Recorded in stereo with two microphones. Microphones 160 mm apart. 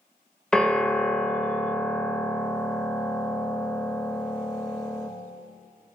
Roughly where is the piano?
Centre.